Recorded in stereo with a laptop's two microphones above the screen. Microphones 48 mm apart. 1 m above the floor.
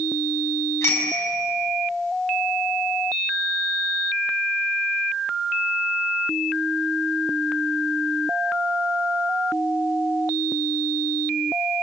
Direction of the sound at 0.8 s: 60° left (ahead or behind).